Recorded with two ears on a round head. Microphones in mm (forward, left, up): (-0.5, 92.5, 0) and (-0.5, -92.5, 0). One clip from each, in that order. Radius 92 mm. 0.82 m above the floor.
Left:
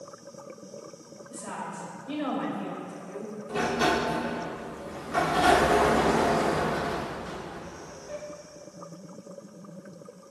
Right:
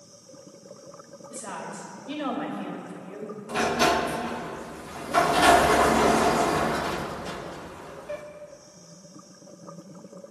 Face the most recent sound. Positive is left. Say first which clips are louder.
# right 3 dB
turn(degrees=-35)  # may be behind; listen again after turning